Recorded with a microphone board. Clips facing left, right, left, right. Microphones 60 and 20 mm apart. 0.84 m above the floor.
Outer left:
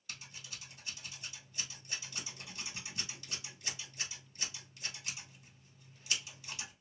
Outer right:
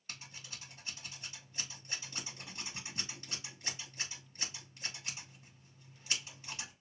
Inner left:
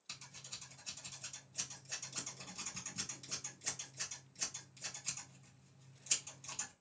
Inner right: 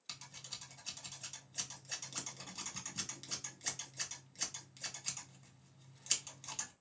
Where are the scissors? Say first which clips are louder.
Even, inner right 2 dB; 35° right (ahead or behind), 1.6 m.